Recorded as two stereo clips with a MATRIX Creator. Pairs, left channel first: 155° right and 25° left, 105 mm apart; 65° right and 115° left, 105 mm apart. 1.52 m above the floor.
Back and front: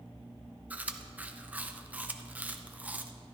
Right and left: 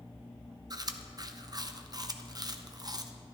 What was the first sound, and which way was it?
Chewing, 90° left.